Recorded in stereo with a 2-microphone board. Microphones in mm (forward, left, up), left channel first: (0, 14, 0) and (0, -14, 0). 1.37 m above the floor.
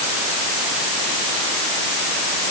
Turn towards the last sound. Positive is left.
No sound to turn to.